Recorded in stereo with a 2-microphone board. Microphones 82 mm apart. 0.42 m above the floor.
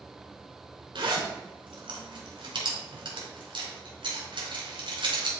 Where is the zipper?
75° right (ahead or behind), 4 m.